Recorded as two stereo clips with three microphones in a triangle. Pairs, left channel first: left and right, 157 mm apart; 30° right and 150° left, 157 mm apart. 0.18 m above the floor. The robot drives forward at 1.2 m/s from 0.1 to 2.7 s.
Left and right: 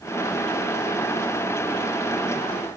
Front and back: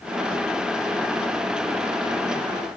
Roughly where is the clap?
No clap in this recording.